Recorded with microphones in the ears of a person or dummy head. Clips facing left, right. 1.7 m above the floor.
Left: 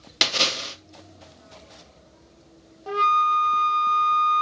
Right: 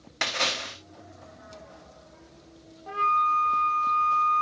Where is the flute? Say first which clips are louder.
Left 4 dB; 50° left (ahead or behind), 0.7 m.